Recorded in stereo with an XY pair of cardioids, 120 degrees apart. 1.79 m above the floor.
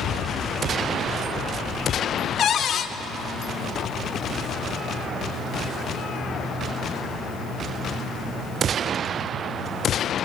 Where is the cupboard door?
50° left, 0.7 m.